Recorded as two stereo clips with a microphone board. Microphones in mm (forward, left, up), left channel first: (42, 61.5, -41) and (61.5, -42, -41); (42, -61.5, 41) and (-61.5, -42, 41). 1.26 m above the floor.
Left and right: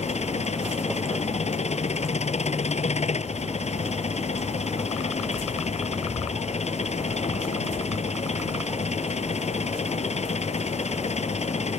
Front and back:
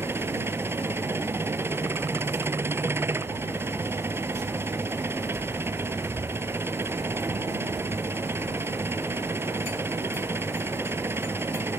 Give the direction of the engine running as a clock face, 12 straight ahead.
9 o'clock.